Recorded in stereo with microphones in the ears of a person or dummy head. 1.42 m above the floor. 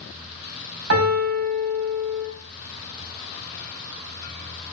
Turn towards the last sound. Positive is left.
turn(degrees=-70)  # may be behind; listen again after turning